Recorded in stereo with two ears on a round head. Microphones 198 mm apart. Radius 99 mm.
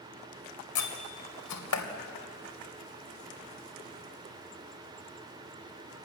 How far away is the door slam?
About 2.5 m.